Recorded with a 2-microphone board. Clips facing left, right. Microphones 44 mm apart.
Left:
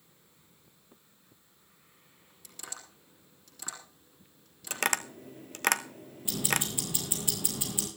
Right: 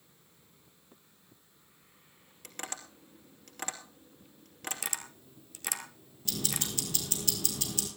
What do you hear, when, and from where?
2.4 s tapping: 55° right (ahead or behind), 3 m
4.7 s tapping: 60° left (ahead or behind), 0.8 m
6.2 s ticking: 20° left (ahead or behind), 4 m